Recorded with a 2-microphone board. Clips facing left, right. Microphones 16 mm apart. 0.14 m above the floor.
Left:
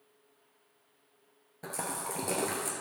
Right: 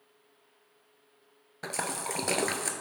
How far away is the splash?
About 1.0 m.